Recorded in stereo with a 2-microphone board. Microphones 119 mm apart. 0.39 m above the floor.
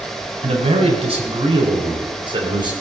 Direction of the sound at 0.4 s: 55° right (ahead or behind).